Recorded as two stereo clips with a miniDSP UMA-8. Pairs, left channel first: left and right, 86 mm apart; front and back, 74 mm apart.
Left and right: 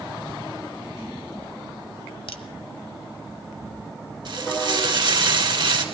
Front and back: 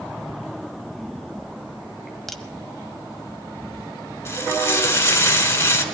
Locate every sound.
2.3 s a crack: 85° left, 1.2 m
4.2 s frying: 55° right, 2 m